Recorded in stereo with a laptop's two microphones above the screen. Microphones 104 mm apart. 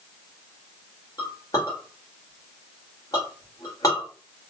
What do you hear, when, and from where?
1.2 s a clink: 35° left (ahead or behind), 2.5 m